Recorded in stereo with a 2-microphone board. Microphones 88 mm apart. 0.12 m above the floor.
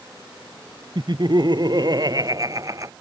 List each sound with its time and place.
0.9 s laughter: 60° right (ahead or behind); by 2.9 s 40° right (ahead or behind)